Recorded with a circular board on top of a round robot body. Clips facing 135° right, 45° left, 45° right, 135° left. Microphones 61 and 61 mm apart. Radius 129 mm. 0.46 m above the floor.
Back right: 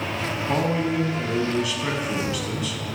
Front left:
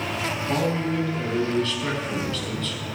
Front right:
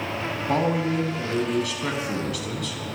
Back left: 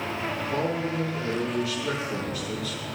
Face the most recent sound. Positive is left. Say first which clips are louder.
# back right 2 dB, front right 6 dB
turn(degrees=-55)